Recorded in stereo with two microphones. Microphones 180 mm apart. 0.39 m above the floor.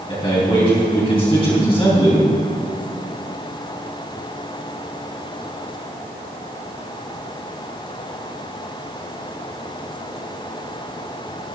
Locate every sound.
0.1 s a man speaking: 30° left (ahead or behind), 3 m